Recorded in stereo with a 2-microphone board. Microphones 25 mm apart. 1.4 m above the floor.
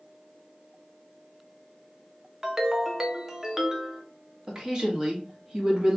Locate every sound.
2.4 s a ringtone: 20° right (ahead or behind), 0.6 m
4.5 s a woman speaking: 30° right (ahead or behind), 1.3 m